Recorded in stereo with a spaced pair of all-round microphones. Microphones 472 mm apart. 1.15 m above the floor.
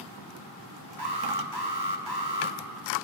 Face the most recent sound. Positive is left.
turn(degrees=-55)  # may be behind; listen again after turning